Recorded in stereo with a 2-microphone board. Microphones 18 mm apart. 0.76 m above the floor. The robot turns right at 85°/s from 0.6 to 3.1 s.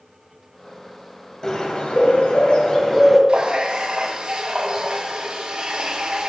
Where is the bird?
25° left, 1.5 m; by 3.2 s 165° left, 1.5 m.